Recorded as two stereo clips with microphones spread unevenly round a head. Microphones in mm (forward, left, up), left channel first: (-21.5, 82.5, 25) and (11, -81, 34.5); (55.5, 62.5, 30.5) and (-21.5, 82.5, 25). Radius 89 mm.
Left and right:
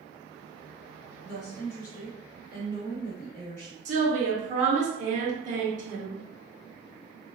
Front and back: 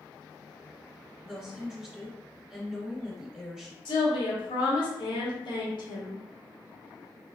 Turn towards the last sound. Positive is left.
turn(degrees=-35)